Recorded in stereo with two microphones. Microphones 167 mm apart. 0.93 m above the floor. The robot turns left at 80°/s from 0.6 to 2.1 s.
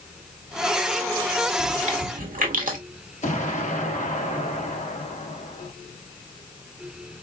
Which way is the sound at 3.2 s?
45° left (ahead or behind).